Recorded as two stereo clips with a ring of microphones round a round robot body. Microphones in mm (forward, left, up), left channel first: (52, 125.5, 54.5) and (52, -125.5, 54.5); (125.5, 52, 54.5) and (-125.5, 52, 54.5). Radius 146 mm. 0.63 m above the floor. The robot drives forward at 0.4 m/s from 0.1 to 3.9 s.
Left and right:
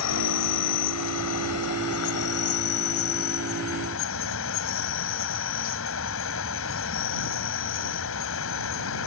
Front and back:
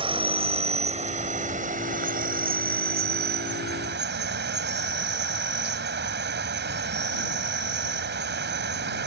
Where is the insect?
110° left; by 9.1 s 135° left.